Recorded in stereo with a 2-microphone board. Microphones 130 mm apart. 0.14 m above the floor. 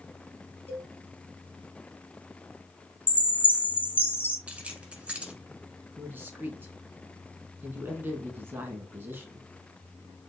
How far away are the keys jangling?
About 1.2 m.